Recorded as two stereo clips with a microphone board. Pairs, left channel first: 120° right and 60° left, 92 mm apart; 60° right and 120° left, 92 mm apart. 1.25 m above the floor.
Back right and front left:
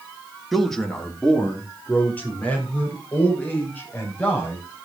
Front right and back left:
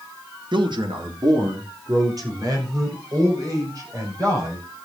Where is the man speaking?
150° left, 1.7 m; by 4.8 s 170° left, 7.5 m.